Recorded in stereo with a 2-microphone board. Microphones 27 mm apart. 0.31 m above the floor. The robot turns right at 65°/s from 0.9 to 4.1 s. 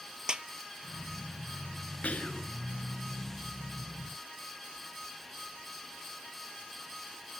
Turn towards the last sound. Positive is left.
turn(degrees=-160)